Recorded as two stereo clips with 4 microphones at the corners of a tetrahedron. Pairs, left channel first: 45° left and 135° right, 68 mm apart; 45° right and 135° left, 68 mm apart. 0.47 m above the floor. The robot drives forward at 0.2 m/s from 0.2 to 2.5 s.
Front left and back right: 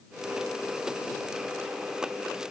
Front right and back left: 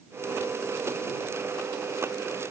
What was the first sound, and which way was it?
Only background noise.